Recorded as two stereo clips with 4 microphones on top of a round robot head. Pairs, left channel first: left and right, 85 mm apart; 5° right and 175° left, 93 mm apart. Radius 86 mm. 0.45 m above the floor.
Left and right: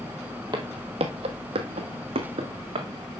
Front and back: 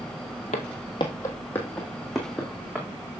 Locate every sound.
0.5 s footsteps: 30° right, 0.8 m; by 2.9 s 100° right, 2 m